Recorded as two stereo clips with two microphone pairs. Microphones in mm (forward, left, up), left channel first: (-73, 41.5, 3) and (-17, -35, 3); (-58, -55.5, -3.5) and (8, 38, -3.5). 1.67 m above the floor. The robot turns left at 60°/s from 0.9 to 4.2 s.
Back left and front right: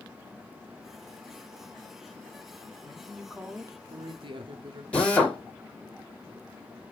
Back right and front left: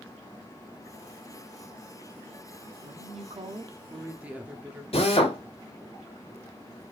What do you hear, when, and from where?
2.8 s a woman speaking: 60° left, 0.8 m; by 4.8 s 25° right, 0.8 m
4.9 s a drill: 155° right, 1.6 m